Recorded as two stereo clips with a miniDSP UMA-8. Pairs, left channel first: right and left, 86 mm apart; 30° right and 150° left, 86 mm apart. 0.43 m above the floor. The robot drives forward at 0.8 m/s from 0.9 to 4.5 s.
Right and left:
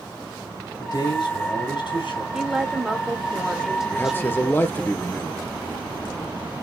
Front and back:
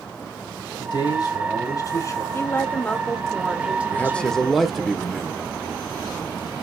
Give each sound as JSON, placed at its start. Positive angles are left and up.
{"t": 0.8, "sound": "a man speaking", "azimuth_deg": -55, "distance_m": 3.0}
{"t": 2.3, "sound": "a woman speaking", "azimuth_deg": 10, "distance_m": 1.5}
{"t": 3.9, "sound": "a man speaking", "azimuth_deg": -60, "distance_m": 1.0}